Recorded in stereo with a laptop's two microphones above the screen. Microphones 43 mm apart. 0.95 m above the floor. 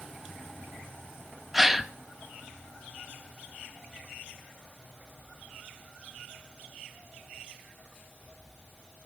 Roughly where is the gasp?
Centre.